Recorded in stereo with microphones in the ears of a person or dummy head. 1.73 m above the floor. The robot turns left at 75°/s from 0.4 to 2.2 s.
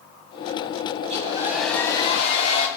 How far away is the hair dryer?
About 3 m.